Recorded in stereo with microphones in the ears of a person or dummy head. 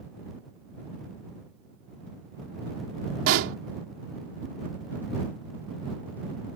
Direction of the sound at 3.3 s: 75° right (ahead or behind).